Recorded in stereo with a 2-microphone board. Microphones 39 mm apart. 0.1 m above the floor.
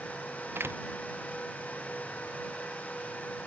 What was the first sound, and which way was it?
A door slam, 75° right (ahead or behind).